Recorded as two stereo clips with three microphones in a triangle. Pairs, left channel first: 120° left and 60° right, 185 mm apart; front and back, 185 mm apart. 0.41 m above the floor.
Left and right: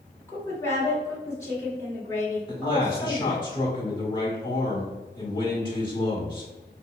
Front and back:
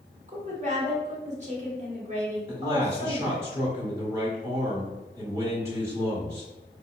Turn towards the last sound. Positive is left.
turn(degrees=130)